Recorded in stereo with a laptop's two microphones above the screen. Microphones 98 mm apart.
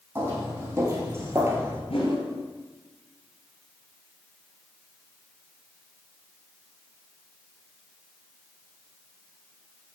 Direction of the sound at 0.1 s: 25° right (ahead or behind).